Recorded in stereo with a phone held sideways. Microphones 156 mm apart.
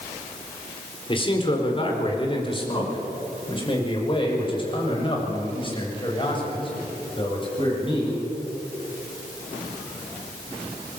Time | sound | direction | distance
1.1 | a man speaking | 35° left (ahead or behind) | 4 m